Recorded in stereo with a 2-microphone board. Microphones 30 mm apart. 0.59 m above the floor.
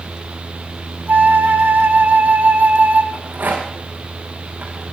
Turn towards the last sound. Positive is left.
turn(degrees=-80)